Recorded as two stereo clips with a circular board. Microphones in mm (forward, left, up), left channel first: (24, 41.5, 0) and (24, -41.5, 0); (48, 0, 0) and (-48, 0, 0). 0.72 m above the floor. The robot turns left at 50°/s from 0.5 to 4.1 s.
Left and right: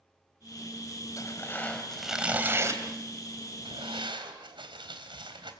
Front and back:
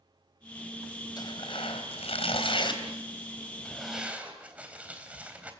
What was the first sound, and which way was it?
Tearing paper, 40° left.